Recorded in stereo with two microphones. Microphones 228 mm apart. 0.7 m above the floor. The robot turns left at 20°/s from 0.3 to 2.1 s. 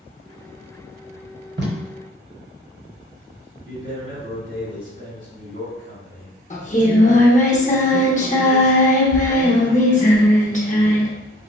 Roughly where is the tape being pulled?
Right.